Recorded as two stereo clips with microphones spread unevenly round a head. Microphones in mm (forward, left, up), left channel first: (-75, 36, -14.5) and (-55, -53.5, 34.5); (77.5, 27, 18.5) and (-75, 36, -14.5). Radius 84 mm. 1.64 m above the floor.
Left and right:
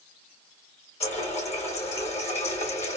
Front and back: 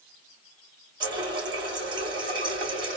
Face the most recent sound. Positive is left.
turn(degrees=110)